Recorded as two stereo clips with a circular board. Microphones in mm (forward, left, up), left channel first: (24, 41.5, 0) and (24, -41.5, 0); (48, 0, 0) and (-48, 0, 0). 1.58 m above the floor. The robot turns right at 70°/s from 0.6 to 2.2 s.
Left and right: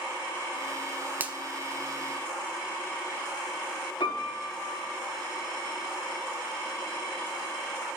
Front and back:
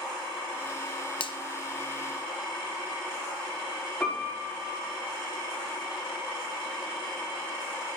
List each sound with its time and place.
1.2 s a finger snap: 25° right, 0.6 m; by 1.4 s 10° right, 0.6 m
4.0 s a piano: 85° left, 5.5 m